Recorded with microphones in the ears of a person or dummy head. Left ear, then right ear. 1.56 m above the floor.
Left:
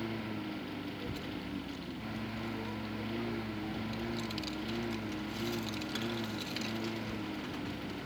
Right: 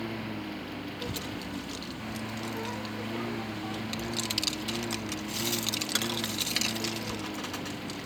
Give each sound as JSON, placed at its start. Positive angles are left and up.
{"t": 0.0, "sound": "a lawn mower", "side_deg": -10}
{"t": 1.0, "sound": "a child speaking", "side_deg": -40}